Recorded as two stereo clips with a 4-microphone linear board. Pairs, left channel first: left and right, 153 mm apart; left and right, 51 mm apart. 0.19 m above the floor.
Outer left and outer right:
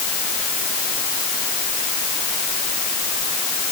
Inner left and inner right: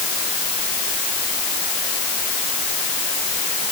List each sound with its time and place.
Only background noise.